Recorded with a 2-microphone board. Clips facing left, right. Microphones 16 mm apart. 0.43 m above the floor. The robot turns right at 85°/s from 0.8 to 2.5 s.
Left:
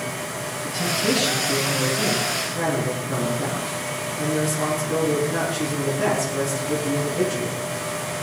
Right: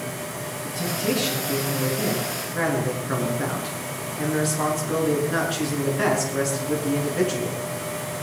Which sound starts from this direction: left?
A man speaking, at 0.6 s.